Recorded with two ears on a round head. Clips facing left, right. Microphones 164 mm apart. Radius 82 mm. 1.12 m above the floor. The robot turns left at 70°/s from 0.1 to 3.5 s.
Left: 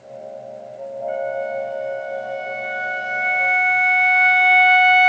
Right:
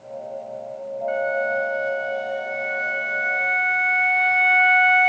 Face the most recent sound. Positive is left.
turn(degrees=120)